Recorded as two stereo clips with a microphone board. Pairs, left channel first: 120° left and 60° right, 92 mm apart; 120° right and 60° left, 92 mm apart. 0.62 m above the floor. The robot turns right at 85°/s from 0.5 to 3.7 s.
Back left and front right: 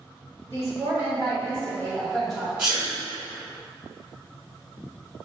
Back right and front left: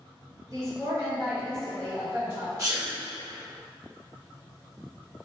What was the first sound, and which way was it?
A woman speaking, 65° left.